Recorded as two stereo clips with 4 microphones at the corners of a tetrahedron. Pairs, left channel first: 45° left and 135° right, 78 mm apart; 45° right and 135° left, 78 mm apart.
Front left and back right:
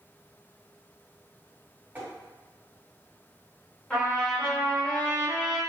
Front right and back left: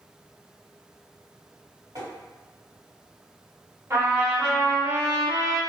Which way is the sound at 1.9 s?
160° left.